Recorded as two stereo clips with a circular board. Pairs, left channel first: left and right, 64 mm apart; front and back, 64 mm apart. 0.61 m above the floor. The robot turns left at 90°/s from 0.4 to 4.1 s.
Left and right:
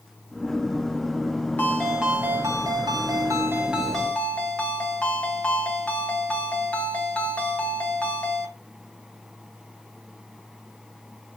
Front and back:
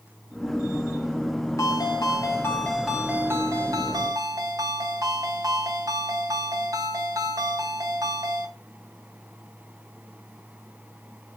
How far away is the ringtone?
About 3 m.